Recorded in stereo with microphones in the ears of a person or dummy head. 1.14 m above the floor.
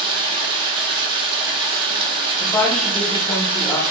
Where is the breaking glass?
I don't hear breaking glass.